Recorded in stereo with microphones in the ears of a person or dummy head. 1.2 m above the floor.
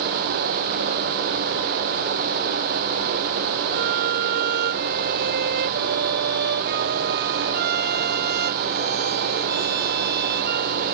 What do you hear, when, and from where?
3.7 s a violin: 60° right (ahead or behind)